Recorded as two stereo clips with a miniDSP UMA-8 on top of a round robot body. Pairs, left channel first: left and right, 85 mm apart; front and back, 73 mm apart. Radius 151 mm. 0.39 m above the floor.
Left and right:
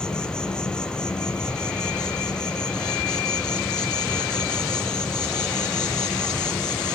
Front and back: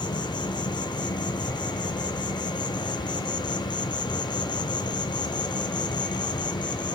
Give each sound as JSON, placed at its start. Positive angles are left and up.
{"t": 0.0, "sound": "an insect", "azimuth_deg": 10, "distance_m": 1.2}